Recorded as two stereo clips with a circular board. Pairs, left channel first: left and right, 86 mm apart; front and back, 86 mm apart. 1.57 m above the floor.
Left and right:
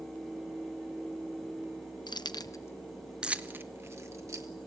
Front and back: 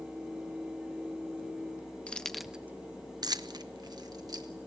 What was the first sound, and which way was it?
Keys jangling, 75° left.